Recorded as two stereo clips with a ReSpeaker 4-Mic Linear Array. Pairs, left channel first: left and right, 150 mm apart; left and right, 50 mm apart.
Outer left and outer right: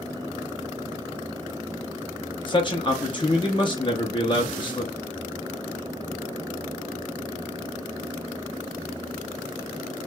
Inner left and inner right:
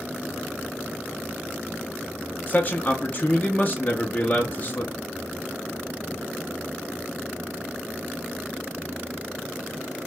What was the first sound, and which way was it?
A man speaking, 30° left (ahead or behind).